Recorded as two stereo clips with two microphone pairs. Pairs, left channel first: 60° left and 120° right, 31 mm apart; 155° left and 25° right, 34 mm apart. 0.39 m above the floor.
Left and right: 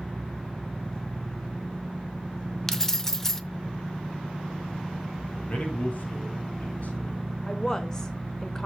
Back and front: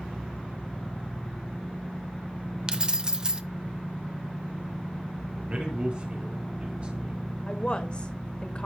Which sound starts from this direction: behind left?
A woman speaking, at 7.5 s.